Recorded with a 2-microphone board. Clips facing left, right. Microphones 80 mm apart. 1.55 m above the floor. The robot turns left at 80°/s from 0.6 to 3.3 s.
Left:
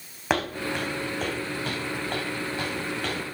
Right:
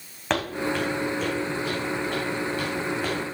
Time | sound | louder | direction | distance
0.3 | footsteps | right 1 dB | 5° left (ahead or behind) | 4.5 m